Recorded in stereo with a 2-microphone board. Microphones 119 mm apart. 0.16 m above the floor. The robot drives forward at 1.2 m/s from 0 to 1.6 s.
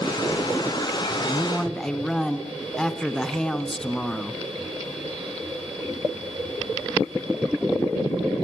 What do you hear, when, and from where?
1.3 s a man speaking: 5° left (ahead or behind), 1.2 m